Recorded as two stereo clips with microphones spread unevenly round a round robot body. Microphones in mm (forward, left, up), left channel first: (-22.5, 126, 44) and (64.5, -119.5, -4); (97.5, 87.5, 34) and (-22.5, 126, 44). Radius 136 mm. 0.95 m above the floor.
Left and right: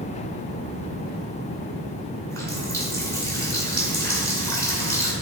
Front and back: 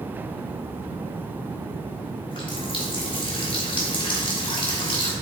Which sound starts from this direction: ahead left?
A running tap, at 2.3 s.